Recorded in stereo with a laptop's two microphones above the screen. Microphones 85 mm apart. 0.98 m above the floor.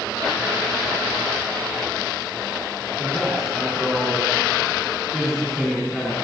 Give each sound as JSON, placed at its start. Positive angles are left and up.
{"t": 3.0, "sound": "a man speaking", "side_deg": -5, "distance_m": 8.5}